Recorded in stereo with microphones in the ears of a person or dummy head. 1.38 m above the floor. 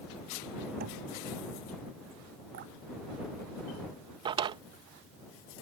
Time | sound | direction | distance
0.8 | knocking | 60° right (ahead or behind) | ?
2.5 | dripping | 55° right (ahead or behind) | ?
4.2 | a drawer | 25° right (ahead or behind) | ?